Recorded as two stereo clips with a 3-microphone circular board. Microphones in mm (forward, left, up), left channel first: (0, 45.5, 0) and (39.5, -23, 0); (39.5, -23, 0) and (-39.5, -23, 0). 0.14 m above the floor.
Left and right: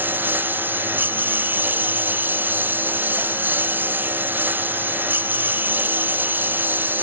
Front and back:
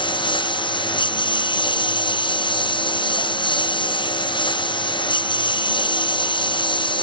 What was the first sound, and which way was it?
A lawn mower, 5° left.